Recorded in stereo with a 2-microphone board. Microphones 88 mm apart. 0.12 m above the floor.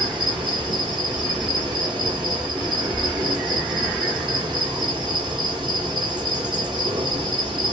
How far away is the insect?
About 1.1 m.